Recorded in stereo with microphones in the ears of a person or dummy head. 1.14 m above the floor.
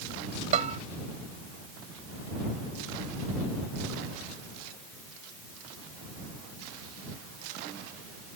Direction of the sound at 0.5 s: 35° right (ahead or behind).